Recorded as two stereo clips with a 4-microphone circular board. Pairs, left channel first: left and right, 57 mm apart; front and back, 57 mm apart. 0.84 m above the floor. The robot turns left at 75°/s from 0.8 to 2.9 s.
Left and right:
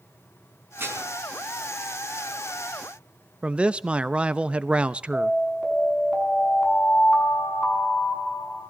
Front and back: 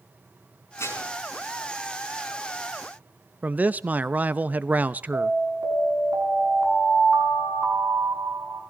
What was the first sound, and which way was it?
Dishes clattering, 35° right.